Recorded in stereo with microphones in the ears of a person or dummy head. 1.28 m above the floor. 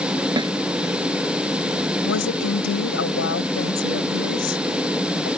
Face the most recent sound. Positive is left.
turn(degrees=75)  # may be behind; listen again after turning